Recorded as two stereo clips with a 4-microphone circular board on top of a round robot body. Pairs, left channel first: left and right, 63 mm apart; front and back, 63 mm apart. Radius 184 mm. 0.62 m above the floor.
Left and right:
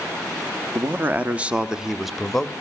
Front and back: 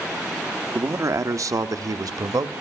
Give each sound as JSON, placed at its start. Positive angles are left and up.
{"t": 0.8, "sound": "a man speaking", "azimuth_deg": -140, "distance_m": 1.1}